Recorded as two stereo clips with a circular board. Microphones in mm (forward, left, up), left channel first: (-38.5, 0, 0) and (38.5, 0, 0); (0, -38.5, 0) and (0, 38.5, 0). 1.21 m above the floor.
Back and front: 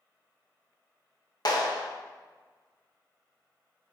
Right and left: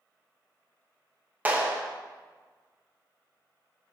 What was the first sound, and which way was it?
A clap, 155° left.